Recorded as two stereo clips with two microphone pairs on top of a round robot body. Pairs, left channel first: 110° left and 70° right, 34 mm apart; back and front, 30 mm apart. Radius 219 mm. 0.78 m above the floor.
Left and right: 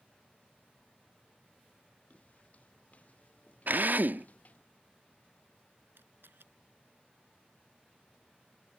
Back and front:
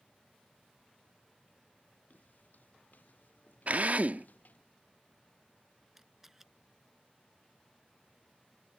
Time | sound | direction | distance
2.1 | footsteps | 155° left | ?
3.7 | a drill | 40° right | ?
6.0 | a camera shutter | 80° right | ?